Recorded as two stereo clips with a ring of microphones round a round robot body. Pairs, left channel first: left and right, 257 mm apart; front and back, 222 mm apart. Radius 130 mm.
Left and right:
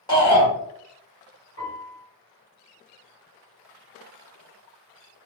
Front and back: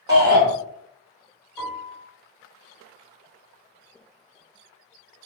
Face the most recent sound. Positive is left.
turn(degrees=90)